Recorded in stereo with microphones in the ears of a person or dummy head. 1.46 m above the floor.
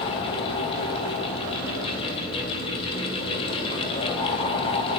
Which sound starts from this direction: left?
A fan, at 0.0 s.